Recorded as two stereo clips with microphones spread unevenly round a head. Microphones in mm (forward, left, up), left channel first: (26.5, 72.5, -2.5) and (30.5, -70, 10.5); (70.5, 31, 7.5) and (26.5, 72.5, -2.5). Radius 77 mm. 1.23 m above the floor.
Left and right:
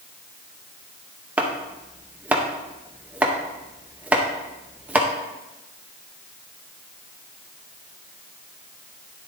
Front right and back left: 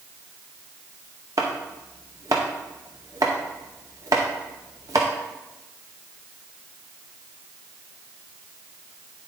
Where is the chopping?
165° right, 0.6 m.